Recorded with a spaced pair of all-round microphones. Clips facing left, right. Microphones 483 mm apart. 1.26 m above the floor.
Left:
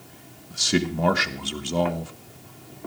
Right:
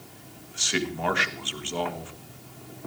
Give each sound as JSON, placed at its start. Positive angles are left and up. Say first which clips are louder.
{"t": 0.5, "sound": "a man speaking", "louder": "left 6 dB", "side_deg": 60, "distance_m": 1.7}